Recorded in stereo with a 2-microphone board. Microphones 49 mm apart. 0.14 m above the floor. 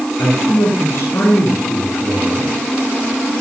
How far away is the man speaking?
About 7.5 m.